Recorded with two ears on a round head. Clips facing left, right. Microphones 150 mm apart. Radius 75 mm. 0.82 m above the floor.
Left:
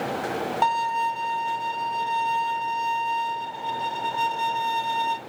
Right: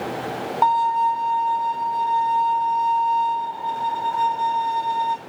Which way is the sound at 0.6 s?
30° left (ahead or behind).